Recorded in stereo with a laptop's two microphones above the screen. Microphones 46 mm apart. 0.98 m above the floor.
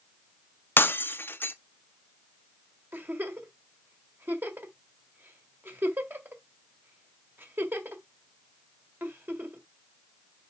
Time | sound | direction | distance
0.8 | breaking glass | 45° left (ahead or behind) | 0.6 m
2.9 | a giggle | 45° right (ahead or behind) | 1.6 m